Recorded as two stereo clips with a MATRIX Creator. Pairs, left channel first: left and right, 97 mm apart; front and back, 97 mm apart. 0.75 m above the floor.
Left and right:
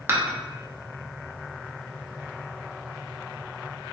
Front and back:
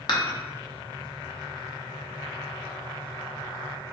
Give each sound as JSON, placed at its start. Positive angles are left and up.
{"t": 0.1, "sound": "dishes clattering", "azimuth_deg": -25, "distance_m": 0.5}